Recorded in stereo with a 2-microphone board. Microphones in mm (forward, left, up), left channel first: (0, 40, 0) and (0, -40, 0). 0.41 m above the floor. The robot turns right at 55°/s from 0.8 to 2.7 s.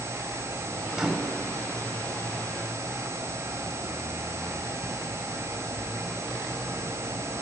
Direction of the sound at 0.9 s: 10° right (ahead or behind).